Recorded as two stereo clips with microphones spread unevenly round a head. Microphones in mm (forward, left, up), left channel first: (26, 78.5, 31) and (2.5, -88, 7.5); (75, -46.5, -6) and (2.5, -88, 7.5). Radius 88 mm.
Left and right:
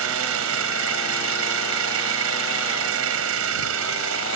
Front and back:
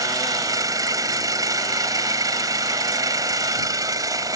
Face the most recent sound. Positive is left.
turn(degrees=-105)